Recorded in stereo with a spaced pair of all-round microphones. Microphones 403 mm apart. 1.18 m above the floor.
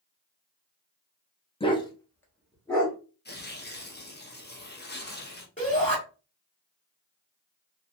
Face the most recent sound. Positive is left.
turn(degrees=20)  # may be behind; listen again after turning